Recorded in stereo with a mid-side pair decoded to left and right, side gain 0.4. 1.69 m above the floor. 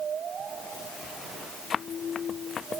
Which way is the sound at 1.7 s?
55° left.